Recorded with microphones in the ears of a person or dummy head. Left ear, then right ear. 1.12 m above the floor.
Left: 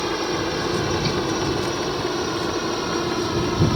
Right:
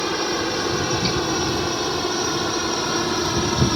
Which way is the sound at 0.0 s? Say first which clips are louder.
Right 1 dB; 15° right (ahead or behind).